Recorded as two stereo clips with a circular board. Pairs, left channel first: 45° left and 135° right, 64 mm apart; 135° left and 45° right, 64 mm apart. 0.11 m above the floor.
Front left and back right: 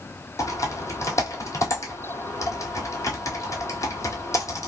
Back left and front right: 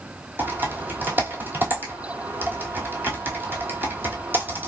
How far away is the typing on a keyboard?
About 1.0 m.